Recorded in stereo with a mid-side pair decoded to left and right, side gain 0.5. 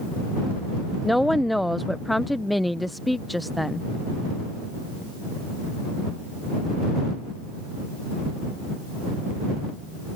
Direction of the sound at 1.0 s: 5° left.